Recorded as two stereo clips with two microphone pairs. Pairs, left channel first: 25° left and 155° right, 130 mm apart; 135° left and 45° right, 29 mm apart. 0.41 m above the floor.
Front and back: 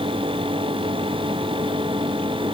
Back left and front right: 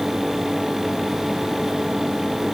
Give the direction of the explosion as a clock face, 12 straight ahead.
No explosion in this recording.